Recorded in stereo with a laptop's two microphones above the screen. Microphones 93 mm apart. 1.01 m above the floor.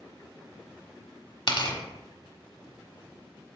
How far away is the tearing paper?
About 1.3 m.